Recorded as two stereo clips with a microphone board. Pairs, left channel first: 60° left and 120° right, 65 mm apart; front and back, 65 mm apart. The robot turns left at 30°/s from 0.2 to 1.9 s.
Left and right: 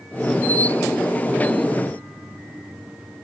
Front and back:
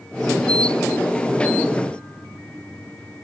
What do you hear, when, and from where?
Only background noise.